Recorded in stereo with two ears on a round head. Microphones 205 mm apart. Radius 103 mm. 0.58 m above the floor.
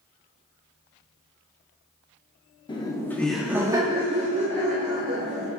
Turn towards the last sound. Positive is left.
turn(degrees=-35)  # may be behind; listen again after turning